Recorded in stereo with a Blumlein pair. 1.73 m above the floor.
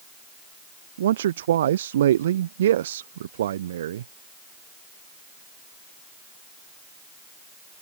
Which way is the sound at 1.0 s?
60° right.